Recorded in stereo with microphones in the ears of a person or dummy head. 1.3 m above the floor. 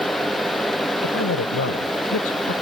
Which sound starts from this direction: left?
A man speaking, at 1.0 s.